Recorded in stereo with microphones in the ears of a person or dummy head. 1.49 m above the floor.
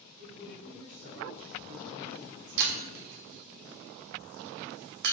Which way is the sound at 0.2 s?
55° right (ahead or behind).